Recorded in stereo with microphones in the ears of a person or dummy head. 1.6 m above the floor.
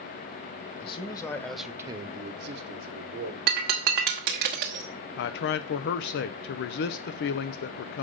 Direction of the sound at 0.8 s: 30° left (ahead or behind).